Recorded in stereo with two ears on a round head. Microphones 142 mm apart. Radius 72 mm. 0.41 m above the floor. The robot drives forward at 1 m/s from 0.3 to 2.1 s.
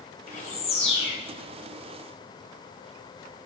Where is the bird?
50° left (ahead or behind), 1.5 m; by 1.1 s 35° left (ahead or behind), 2 m.